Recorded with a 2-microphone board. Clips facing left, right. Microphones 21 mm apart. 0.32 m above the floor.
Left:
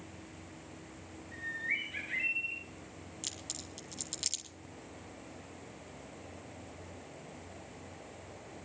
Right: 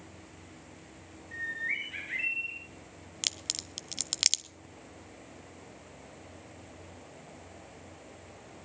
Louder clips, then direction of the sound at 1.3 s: Right 2 dB; 45° right (ahead or behind).